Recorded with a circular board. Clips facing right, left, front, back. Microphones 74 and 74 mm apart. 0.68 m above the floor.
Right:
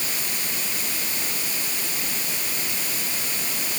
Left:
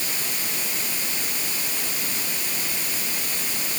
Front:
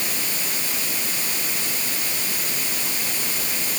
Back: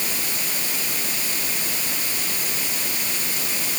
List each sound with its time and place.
Only background noise.